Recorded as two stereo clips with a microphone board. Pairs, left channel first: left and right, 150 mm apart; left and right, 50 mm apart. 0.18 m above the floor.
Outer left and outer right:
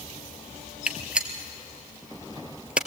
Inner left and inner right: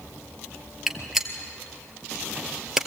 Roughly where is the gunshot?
Centre.